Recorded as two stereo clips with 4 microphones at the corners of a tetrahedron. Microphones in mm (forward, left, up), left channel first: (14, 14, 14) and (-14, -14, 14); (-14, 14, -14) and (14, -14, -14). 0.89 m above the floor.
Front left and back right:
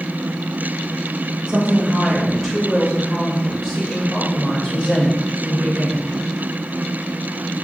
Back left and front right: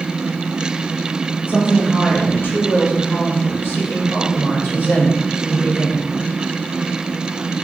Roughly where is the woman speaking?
Behind left.